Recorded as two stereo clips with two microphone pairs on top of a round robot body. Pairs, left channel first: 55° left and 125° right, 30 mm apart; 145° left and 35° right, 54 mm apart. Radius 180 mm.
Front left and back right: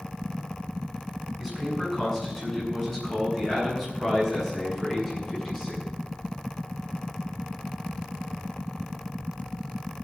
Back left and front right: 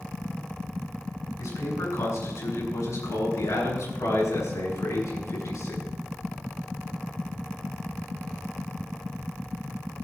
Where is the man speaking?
145° left, 8.5 m.